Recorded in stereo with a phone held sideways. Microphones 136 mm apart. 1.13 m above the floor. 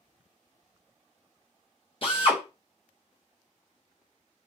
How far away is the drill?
About 0.8 m.